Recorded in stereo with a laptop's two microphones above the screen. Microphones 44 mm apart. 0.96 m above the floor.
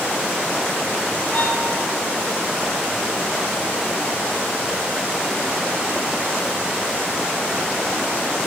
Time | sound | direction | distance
1.3 | a violin | 35° left (ahead or behind) | 5 m